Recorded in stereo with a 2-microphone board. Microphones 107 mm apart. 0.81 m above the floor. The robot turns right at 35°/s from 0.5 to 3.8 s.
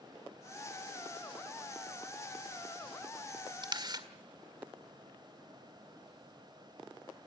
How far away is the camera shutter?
About 1.8 m.